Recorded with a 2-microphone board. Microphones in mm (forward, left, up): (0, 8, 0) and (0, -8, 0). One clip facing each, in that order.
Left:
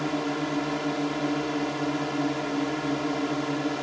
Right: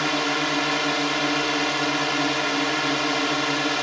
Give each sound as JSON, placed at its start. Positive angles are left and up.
{"t": 0.0, "sound": "a drone", "side_deg": -70}